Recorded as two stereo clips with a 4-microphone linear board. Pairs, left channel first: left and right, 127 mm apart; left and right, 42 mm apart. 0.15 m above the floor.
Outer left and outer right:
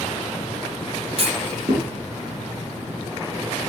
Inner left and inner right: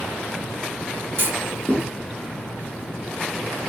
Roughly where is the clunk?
Right.